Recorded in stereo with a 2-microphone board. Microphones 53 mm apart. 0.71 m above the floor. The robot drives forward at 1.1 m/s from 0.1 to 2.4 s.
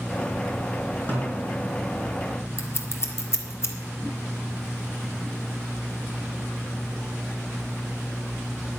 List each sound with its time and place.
1.1 s a snare drum: 35° left (ahead or behind), 3.5 m; by 1.6 s 30° left (ahead or behind), 4 m
2.6 s scissors: 55° left (ahead or behind), 1.7 m